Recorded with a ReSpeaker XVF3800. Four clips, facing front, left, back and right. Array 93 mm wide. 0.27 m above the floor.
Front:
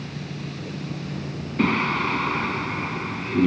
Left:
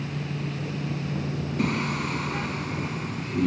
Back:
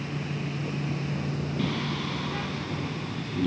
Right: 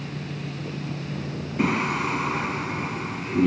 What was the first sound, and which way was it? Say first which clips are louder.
Singing: right 4 dB, front 11 dB; 30° right.